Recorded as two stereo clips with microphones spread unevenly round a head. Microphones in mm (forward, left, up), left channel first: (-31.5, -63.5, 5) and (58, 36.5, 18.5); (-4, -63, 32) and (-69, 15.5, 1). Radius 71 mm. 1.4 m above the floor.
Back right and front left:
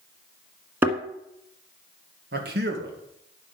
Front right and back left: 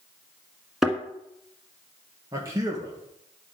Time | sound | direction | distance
0.8 | a thud | 5° left | 1.4 m
2.3 | a man speaking | 65° left | 1.7 m